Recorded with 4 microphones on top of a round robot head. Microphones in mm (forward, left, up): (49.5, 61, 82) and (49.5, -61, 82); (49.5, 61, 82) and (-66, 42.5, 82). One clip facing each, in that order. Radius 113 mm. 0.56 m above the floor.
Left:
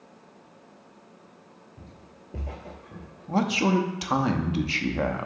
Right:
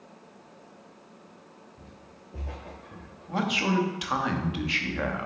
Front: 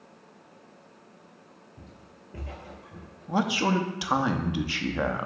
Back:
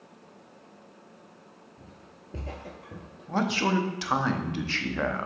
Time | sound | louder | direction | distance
1.8 | footsteps | left 1 dB, even | 50° left | 0.7 m
3.3 | a man speaking | left 4 dB, front 1 dB | 80° left | 0.8 m